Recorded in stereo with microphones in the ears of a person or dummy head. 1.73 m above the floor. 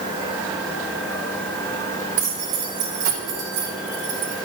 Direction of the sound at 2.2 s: 80° right.